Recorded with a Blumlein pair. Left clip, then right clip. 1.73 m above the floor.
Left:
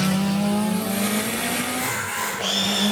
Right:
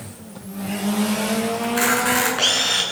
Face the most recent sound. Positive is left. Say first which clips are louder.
# right 6 dB
turn(degrees=-55)